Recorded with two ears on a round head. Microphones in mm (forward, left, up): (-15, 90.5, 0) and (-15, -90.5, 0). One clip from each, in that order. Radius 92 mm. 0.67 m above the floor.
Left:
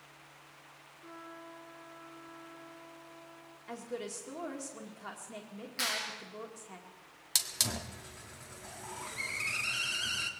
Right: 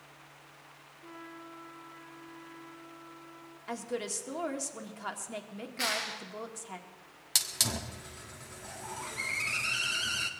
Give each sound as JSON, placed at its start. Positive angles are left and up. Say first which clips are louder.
{"t": 1.0, "sound": "a trumpet", "louder": "right 1 dB", "side_deg": -5, "distance_m": 10.0}
{"t": 3.7, "sound": "a woman speaking", "louder": "right 5 dB", "side_deg": -25, "distance_m": 1.9}
{"t": 5.8, "sound": "a clap", "louder": "right 2 dB", "side_deg": 45, "distance_m": 7.5}
{"t": 7.3, "sound": "a hiss", "louder": "right 2 dB", "side_deg": 5, "distance_m": 1.4}